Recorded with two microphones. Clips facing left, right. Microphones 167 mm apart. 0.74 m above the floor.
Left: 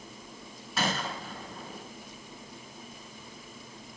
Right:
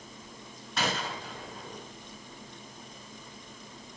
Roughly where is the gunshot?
Centre.